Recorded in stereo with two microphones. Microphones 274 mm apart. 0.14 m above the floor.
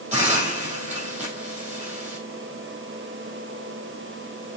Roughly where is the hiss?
Right.